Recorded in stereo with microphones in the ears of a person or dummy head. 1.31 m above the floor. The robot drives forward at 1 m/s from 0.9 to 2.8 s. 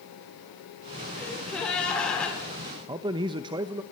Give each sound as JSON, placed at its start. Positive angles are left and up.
{"t": 1.2, "sound": "a gasp", "side_deg": 5, "distance_m": 6.5}
{"t": 2.9, "sound": "a man speaking", "side_deg": -25, "distance_m": 0.9}